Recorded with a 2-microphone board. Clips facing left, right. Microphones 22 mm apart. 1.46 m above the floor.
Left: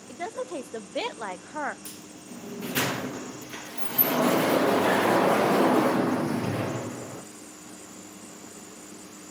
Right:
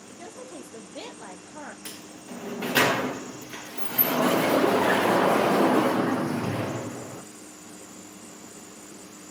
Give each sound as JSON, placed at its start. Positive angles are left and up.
{"t": 0.1, "sound": "a woman speaking", "side_deg": 65, "distance_m": 0.6}
{"t": 1.9, "sound": "a sliding door", "side_deg": -65, "distance_m": 0.7}